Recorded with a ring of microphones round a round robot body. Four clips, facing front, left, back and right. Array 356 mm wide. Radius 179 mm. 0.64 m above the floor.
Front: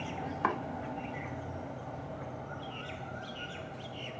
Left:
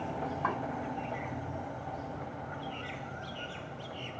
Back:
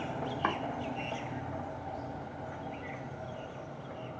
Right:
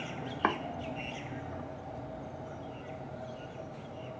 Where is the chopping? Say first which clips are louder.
Right 4 dB, front 1 dB; 85° right, 0.6 m.